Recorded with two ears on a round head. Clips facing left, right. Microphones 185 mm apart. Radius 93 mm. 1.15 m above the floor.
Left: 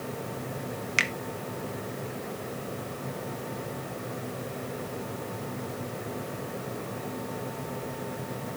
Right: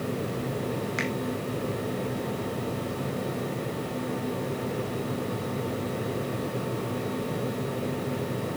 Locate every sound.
1.0 s a finger snap: 40° left (ahead or behind), 0.9 m